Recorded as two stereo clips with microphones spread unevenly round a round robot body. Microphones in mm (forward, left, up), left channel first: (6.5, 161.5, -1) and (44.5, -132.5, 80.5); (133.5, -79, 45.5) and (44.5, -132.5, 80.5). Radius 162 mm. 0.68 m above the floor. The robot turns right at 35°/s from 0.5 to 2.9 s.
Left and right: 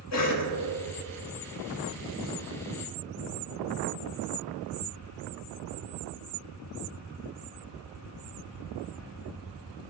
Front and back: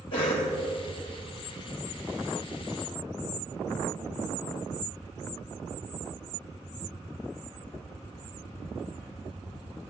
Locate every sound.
0.1 s a cough: 75° left, 3 m